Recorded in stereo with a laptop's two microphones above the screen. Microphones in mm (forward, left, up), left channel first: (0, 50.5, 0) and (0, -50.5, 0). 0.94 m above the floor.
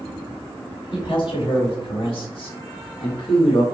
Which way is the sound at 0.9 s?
55° left (ahead or behind).